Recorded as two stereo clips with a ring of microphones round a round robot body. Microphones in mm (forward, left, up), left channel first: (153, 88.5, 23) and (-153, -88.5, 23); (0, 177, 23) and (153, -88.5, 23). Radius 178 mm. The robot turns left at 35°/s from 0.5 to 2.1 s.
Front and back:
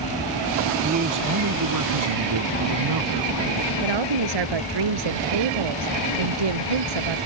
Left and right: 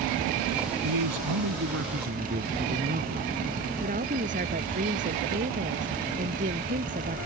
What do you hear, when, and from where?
0.8 s a man speaking: 80° right; by 3.7 s 125° right
3.8 s a woman speaking: 130° right